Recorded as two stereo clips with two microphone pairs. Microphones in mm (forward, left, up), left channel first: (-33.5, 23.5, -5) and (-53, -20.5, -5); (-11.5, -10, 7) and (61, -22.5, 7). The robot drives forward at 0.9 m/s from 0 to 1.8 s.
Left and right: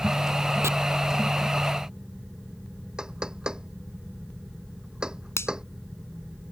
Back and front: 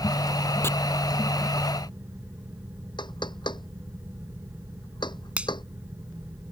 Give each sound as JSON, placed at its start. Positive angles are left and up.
{"t": 0.6, "sound": "chopping", "azimuth_deg": -130}
{"t": 3.0, "sound": "knocking", "azimuth_deg": 175}
{"t": 5.4, "sound": "a finger snap", "azimuth_deg": 60}